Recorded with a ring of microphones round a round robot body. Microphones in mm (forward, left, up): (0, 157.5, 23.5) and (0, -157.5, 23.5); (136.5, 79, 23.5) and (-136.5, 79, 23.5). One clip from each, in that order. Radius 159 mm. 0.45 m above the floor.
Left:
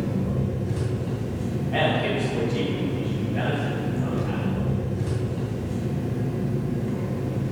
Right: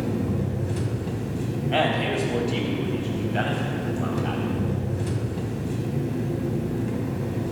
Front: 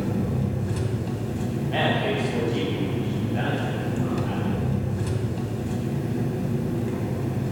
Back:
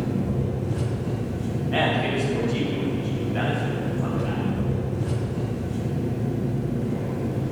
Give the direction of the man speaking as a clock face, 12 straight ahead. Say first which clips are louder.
Even, back 1 dB; 3 o'clock.